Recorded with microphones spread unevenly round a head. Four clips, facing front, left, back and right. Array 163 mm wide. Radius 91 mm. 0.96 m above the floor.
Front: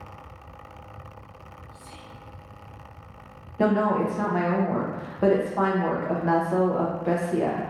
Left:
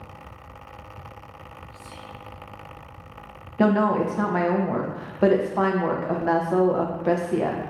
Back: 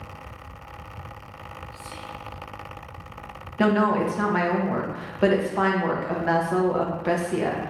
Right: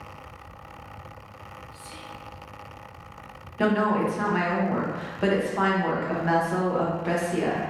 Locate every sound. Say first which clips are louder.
1.7 s whispering: left 1 dB, back 6 dB; 50° right, 1.6 m
3.6 s a woman speaking: left 3 dB, back 1 dB; 105° left, 0.5 m